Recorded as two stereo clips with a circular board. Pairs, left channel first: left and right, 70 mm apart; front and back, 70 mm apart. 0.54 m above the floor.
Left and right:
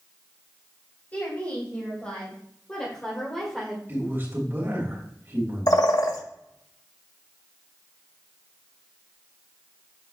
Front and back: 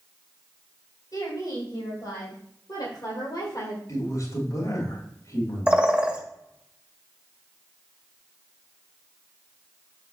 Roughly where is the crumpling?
I don't hear crumpling.